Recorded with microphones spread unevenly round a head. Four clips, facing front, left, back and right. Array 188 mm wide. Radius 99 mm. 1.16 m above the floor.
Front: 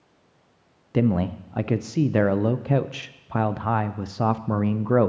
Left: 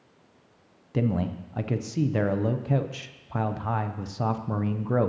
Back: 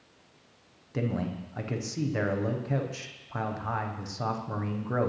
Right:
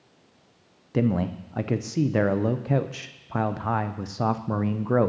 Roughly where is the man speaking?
Ahead.